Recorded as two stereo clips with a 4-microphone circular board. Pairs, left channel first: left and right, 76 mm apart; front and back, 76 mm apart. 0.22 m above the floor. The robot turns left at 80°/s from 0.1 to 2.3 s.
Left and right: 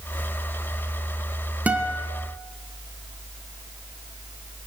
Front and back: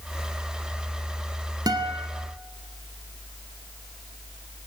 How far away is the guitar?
About 1.9 m.